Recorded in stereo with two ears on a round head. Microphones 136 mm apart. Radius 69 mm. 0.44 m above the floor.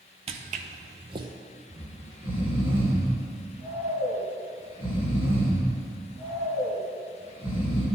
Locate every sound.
0.3 s footsteps: 45° right (ahead or behind), 0.8 m; by 1.3 s 30° right (ahead or behind), 1.1 m
1.7 s snoring: 15° right (ahead or behind), 2.5 m